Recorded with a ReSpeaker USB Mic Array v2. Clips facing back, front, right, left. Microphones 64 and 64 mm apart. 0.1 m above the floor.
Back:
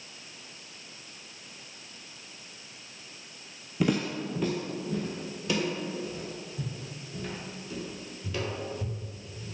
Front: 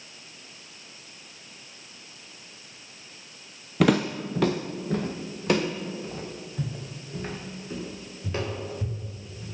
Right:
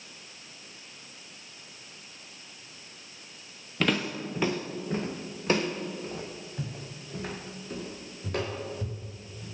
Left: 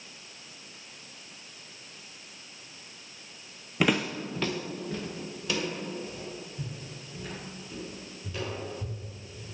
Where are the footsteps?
15° left, 0.6 m; by 9.4 s 60° right, 3.5 m.